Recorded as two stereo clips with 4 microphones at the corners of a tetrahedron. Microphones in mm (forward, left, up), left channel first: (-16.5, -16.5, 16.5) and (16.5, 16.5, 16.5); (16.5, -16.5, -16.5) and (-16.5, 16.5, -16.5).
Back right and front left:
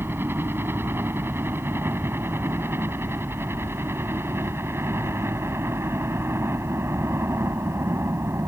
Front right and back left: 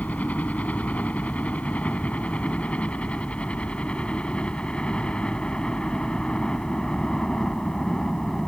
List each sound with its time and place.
0.0 s a helicopter: 10° left; by 8.5 s 30° left